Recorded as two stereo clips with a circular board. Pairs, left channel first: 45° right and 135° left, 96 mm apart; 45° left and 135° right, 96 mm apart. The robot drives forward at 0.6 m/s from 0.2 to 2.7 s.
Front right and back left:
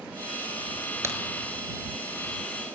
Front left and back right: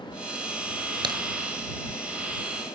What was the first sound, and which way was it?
A crack, 165° right.